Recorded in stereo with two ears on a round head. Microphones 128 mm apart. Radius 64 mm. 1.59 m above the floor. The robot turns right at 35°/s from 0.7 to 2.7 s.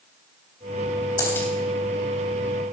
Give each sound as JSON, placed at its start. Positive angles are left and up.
{"t": 1.2, "sound": "a dropped coin", "side_deg": 20, "distance_m": 3.5}